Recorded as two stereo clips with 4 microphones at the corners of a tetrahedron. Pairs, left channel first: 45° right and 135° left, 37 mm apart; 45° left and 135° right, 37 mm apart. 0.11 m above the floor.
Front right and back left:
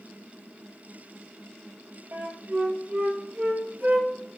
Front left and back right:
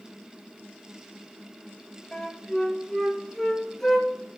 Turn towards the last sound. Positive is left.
turn(degrees=125)